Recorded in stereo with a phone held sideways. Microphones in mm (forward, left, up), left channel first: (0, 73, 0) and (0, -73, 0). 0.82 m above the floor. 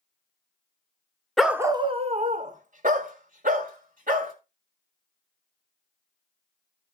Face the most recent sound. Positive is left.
turn(degrees=-85)